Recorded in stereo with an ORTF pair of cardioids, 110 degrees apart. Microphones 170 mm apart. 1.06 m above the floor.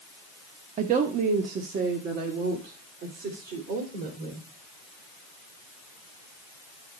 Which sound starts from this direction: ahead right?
A woman speaking, at 0.8 s.